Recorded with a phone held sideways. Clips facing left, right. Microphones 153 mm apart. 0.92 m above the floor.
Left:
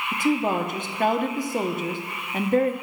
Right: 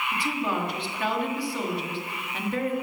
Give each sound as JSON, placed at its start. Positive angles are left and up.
{"t": 0.1, "sound": "a woman speaking", "side_deg": 40, "distance_m": 1.1}